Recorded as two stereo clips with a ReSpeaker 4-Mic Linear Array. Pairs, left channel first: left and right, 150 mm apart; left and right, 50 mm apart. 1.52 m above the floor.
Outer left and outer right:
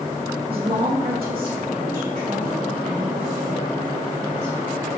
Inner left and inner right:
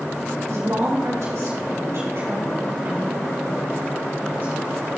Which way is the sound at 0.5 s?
80° right.